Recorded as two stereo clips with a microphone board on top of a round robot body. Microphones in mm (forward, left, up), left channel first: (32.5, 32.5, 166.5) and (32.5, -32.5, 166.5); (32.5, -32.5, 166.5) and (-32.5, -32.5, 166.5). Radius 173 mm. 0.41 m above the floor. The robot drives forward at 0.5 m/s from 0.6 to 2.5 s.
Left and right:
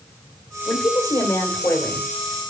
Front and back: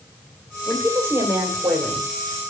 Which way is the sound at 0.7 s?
130° left.